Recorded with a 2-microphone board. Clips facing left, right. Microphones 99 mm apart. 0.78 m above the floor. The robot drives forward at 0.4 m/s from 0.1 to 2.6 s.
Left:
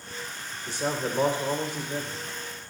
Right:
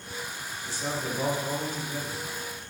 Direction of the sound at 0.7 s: 65° left (ahead or behind).